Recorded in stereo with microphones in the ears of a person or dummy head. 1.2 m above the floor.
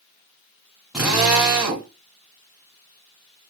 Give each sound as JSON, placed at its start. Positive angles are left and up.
{"t": 0.9, "sound": "a drill", "side_deg": -5, "distance_m": 2.5}